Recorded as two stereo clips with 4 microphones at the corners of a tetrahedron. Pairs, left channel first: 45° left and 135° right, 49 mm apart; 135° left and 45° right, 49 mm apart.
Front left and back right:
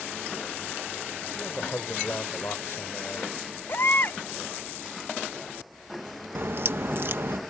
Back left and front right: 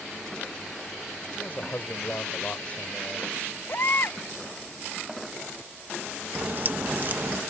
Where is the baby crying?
90° left.